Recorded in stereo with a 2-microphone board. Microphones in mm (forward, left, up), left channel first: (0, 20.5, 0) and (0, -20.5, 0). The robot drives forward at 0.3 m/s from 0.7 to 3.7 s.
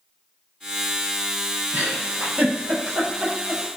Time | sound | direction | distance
1.7 | a giggle | 55° right (ahead or behind) | 1.0 m